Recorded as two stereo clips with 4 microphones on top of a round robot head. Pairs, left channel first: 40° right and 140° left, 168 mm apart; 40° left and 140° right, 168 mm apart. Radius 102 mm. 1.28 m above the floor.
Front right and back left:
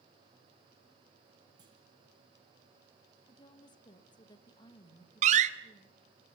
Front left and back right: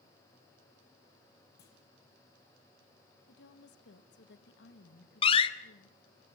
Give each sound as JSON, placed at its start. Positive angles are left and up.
{"t": 1.6, "sound": "a clunk", "azimuth_deg": 75, "distance_m": 7.5}
{"t": 3.3, "sound": "a woman speaking", "azimuth_deg": 25, "distance_m": 1.9}
{"t": 5.2, "sound": "a door slam", "azimuth_deg": 95, "distance_m": 0.7}